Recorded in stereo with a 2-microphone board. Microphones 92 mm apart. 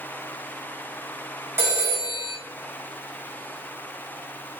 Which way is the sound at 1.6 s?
30° right (ahead or behind).